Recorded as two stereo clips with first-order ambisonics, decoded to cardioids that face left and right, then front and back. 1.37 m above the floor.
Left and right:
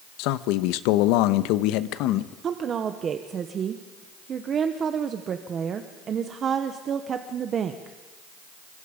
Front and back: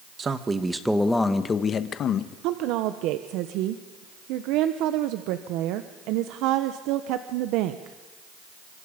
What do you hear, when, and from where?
0.2 s a man speaking: 110° left, 1.1 m; by 2.3 s 50° left, 1.1 m
2.4 s a woman speaking: 155° right, 1.1 m